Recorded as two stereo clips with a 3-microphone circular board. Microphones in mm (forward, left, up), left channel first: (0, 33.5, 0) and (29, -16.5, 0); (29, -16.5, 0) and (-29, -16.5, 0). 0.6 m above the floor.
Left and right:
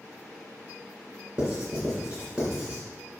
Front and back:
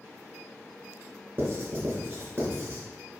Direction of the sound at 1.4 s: 135° right.